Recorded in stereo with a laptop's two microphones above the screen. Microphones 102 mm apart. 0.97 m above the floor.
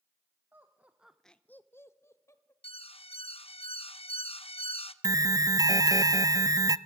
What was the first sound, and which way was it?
Laughter, 20° right (ahead or behind).